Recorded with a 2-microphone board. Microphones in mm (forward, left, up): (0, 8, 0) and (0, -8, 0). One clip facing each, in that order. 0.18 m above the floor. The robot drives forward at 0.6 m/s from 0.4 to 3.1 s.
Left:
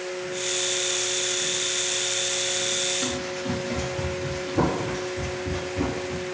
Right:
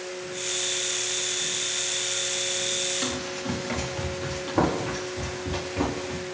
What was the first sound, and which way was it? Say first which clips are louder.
Running footsteps: left 1 dB; 35° right (ahead or behind).